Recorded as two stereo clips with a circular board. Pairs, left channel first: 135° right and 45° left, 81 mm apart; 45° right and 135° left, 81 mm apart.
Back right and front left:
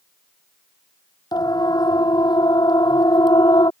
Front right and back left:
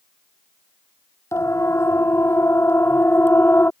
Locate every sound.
1.3 s a siren: 100° right; by 3.7 s 110° right